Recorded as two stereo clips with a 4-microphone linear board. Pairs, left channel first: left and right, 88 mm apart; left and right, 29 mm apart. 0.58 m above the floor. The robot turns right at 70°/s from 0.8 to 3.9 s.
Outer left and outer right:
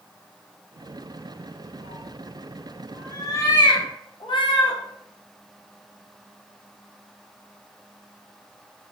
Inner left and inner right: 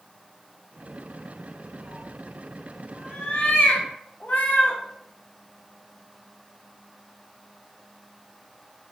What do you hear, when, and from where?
1.8 s a cat meowing: 50° right (ahead or behind), 0.7 m; by 4.8 s 65° left (ahead or behind), 0.7 m